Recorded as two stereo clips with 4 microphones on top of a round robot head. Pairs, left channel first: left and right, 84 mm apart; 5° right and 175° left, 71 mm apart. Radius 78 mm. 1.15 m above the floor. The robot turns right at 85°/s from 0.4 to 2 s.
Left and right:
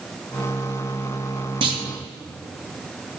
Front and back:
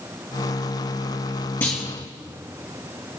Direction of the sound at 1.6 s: 70° right.